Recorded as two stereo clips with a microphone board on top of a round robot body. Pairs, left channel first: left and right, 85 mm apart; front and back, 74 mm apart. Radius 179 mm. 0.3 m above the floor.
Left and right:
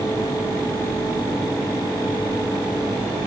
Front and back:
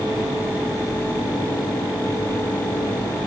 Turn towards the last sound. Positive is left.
No sound to turn to.